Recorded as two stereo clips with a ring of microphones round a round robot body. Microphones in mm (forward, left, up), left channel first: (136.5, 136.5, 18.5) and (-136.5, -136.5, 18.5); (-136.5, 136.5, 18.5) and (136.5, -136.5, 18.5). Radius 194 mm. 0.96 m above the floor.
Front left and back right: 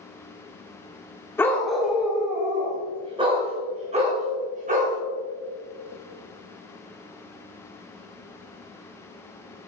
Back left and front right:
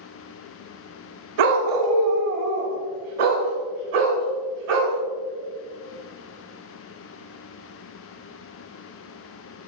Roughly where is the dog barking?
Ahead right.